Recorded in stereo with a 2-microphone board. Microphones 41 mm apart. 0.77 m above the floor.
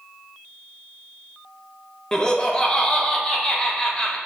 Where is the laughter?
20° left (ahead or behind), 0.6 m.